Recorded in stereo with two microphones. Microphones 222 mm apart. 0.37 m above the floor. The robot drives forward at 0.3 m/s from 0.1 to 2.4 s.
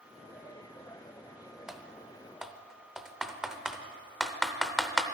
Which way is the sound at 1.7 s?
5° right (ahead or behind).